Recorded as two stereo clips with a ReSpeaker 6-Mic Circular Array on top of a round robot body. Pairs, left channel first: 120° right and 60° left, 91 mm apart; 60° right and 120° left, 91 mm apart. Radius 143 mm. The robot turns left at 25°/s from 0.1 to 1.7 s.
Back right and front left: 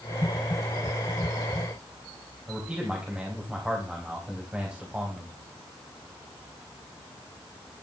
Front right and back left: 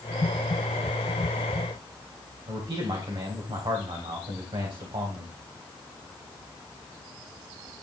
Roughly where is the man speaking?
Behind left.